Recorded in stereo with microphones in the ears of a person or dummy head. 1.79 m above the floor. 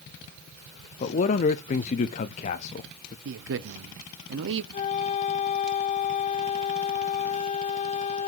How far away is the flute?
About 0.7 m.